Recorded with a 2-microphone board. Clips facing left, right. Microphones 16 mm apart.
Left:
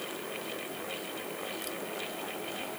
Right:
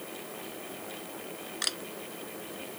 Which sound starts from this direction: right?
A camera shutter, at 1.6 s.